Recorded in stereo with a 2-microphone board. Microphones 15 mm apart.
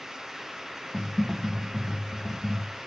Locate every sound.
0.9 s typing on a keyboard: 30° left (ahead or behind), 3 m